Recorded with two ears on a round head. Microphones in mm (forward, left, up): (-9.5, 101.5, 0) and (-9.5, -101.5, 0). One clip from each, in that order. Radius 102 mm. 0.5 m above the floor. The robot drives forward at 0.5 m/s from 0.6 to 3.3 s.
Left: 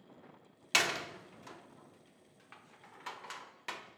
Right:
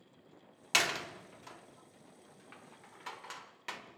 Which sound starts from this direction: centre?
A door slam, at 0.7 s.